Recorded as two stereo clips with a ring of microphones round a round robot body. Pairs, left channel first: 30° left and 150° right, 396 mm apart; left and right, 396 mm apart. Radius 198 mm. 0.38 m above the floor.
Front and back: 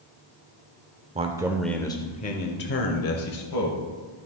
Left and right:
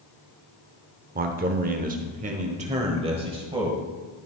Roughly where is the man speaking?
Right.